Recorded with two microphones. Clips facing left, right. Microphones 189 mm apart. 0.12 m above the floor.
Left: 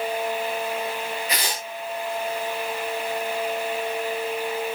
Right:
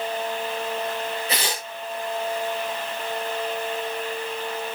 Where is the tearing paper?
35° right (ahead or behind), 8 m.